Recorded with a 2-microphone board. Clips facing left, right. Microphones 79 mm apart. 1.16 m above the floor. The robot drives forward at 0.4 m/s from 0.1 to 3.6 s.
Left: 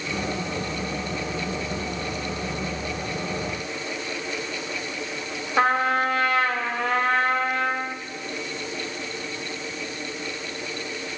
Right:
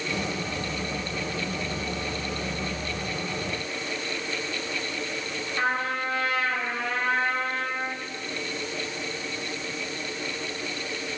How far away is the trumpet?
About 1.6 m.